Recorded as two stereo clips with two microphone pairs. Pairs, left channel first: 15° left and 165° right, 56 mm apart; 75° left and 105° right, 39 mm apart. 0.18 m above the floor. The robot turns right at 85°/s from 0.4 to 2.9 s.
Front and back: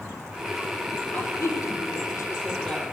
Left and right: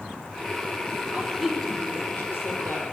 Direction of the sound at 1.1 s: 40° right.